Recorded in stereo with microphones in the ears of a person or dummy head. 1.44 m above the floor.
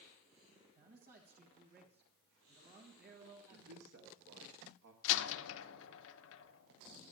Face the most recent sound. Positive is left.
turn(degrees=75)  # may be behind; listen again after turning